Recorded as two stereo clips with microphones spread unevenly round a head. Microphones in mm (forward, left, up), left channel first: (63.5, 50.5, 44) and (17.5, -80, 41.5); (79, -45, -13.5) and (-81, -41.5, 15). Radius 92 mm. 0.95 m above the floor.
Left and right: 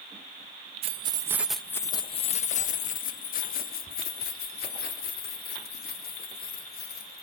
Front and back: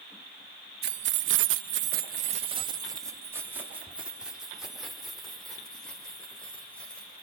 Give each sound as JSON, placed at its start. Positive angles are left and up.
{"t": 0.8, "sound": "keys jangling", "azimuth_deg": -155, "distance_m": 0.7}